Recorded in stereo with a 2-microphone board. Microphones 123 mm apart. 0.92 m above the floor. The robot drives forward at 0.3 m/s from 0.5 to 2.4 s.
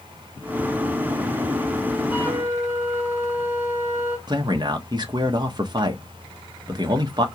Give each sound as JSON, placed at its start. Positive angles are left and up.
{"t": 2.1, "sound": "a flute", "side_deg": -20, "distance_m": 2.5}
{"t": 4.3, "sound": "a man speaking", "side_deg": -35, "distance_m": 1.2}